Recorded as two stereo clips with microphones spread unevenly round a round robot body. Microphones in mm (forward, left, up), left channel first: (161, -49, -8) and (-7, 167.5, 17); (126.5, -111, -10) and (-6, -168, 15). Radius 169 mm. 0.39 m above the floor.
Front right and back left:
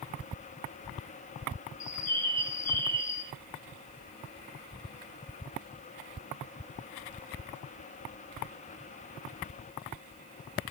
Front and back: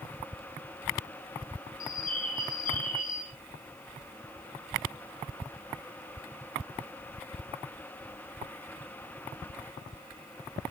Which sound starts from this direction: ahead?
A bird, at 1.8 s.